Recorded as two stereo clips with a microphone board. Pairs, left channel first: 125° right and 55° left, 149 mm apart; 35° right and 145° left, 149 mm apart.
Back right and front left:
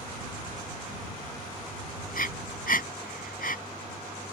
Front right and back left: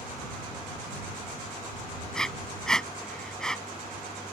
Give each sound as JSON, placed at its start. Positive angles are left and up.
{"t": 2.1, "sound": "breathing", "azimuth_deg": -120}